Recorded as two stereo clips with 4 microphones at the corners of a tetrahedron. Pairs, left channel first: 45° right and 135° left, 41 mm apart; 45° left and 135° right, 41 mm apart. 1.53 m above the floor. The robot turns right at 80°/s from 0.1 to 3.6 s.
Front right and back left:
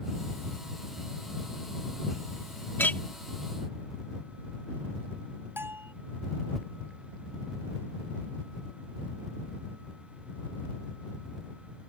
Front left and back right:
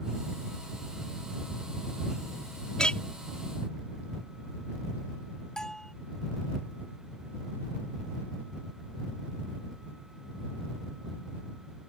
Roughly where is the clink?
Ahead right.